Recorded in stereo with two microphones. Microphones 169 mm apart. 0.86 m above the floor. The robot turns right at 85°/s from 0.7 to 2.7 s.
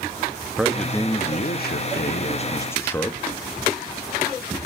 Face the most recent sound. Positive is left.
turn(degrees=165)